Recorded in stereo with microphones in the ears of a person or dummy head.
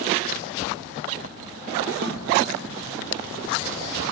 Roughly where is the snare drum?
Right.